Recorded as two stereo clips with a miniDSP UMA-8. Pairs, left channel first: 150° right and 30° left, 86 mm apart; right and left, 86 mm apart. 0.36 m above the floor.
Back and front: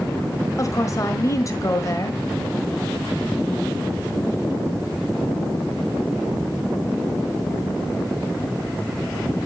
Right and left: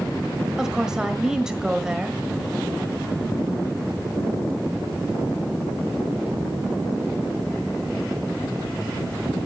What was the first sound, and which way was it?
A woman speaking, 170° left.